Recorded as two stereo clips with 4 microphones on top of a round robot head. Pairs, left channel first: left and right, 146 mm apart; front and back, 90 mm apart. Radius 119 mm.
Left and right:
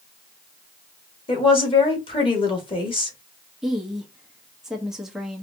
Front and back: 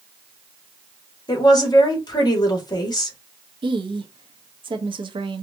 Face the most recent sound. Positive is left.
turn(degrees=-175)